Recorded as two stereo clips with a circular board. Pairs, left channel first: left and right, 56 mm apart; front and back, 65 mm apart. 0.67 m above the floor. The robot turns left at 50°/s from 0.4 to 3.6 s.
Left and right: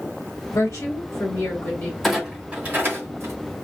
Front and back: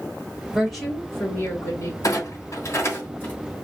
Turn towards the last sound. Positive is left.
turn(degrees=-80)